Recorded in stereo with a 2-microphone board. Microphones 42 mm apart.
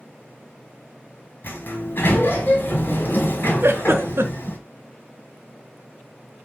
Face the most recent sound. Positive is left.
turn(degrees=-65)  # may be behind; listen again after turning